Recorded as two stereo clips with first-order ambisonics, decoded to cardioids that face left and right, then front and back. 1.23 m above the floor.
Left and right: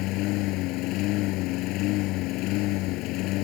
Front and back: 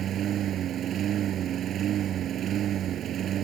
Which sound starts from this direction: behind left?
A lawn mower, at 0.0 s.